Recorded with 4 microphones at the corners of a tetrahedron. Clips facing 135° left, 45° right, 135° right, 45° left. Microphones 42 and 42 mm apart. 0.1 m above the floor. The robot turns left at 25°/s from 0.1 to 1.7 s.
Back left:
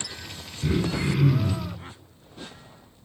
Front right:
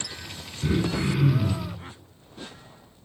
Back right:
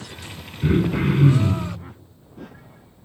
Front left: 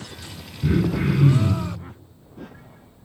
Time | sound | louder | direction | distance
0.6 | throat clearing | even, back right 1 dB | 125° right | 3.5 m